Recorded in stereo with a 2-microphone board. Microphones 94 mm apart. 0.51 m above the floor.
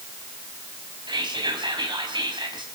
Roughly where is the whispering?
Right.